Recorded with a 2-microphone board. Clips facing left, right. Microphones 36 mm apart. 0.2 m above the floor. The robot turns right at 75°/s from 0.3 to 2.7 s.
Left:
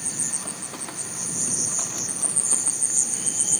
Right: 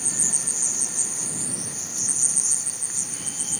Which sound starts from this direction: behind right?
An insect, at 0.0 s.